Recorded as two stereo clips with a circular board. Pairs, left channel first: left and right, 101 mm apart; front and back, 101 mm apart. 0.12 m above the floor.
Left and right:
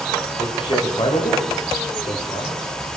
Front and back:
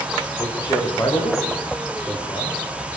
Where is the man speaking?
50° left, 9.5 m; by 2.7 s 60° left, 11.5 m.